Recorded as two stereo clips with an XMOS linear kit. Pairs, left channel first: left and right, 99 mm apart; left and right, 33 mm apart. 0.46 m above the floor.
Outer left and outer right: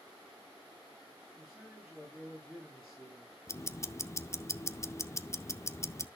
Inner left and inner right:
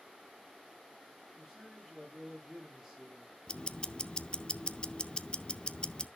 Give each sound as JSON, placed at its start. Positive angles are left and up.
{"t": 1.4, "sound": "a man speaking", "side_deg": 0, "distance_m": 8.5}
{"t": 3.5, "sound": "ticking", "side_deg": 30, "distance_m": 0.5}